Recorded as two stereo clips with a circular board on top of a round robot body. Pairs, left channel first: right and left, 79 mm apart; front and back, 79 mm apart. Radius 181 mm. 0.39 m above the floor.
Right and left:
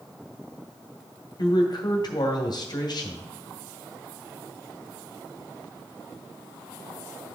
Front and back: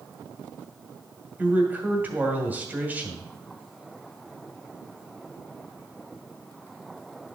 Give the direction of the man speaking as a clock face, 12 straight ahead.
4 o'clock.